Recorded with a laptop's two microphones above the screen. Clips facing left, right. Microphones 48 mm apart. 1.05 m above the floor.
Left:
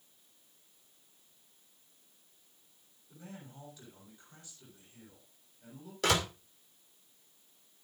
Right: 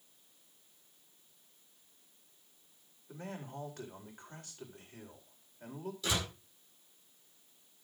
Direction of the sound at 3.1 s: 65° right (ahead or behind).